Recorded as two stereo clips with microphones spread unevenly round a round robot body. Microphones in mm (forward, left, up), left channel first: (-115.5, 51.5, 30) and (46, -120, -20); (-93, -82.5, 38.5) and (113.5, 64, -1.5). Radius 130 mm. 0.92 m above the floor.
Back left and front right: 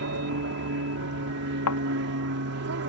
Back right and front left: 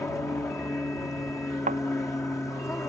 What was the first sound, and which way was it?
An aircraft, 60° right.